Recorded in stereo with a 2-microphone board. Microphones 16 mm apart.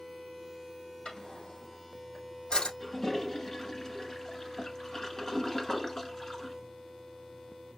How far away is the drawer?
About 3.5 m.